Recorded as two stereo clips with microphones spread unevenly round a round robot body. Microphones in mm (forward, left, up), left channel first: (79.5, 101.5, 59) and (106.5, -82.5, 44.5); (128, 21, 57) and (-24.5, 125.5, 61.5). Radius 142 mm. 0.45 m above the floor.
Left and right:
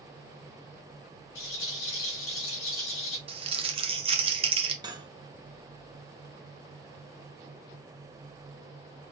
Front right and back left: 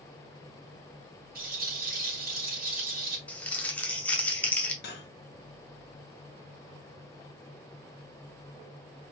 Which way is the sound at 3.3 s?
110° right.